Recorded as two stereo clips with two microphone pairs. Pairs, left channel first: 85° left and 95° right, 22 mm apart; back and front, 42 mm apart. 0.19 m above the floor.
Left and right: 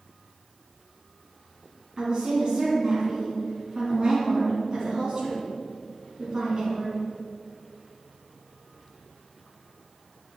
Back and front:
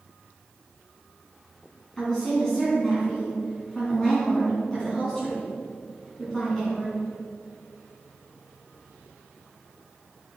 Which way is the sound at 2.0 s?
110° right.